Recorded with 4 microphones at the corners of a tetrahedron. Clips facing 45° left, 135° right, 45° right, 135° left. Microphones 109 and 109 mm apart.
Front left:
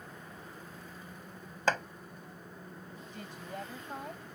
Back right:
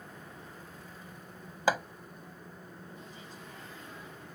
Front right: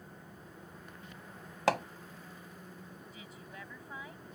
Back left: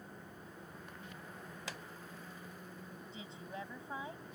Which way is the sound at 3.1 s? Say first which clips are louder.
Front left 5 dB, back left 7 dB; 70° left.